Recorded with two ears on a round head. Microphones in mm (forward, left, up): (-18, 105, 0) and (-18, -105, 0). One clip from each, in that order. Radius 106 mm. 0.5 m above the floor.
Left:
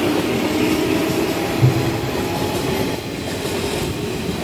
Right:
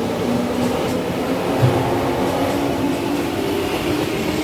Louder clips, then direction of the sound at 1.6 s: Right 2 dB; 70° right (ahead or behind).